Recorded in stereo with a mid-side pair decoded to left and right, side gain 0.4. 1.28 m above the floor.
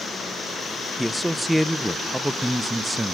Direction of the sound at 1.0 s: 10° right.